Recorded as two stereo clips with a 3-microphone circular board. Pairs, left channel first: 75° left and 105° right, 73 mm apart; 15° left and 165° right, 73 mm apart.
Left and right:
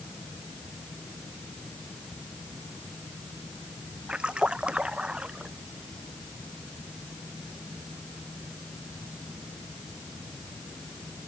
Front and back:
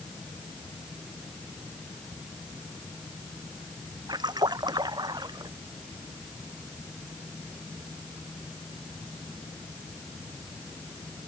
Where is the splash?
Straight behind.